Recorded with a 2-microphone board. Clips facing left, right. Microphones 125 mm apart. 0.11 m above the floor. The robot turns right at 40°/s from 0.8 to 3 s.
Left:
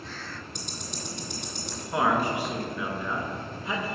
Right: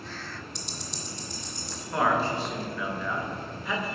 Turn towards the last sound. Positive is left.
turn(degrees=20)  # may be behind; listen again after turning